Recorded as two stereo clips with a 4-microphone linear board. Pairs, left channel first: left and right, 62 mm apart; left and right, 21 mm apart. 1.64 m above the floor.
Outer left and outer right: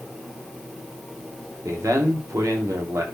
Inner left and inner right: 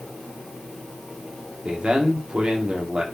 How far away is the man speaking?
About 2 m.